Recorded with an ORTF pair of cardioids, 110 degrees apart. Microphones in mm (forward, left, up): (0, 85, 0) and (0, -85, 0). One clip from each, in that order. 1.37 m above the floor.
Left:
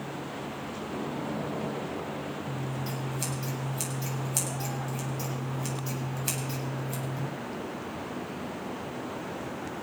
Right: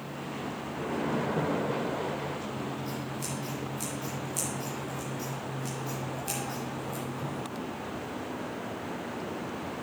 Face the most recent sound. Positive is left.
turn(degrees=50)